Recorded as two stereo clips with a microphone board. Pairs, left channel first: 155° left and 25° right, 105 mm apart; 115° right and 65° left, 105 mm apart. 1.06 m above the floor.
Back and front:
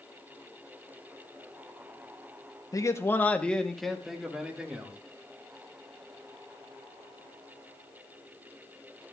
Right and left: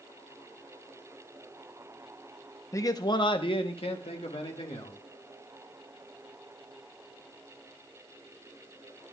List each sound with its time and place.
2.7 s a man speaking: 160° right, 0.8 m; by 5.0 s 100° right, 2 m